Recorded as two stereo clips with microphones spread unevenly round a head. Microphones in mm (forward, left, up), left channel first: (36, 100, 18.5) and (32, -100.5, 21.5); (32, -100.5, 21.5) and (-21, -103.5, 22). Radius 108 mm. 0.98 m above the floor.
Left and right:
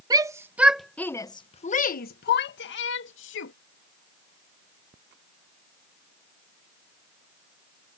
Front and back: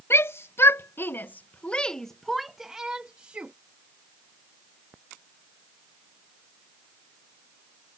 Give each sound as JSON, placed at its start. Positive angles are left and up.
{"t": 0.1, "sound": "a shout", "azimuth_deg": -20}